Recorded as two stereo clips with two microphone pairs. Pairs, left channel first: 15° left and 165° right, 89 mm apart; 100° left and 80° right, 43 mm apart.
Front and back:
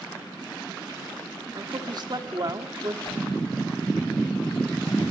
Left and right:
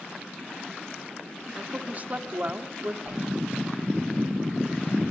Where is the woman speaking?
130° right, 1.7 m.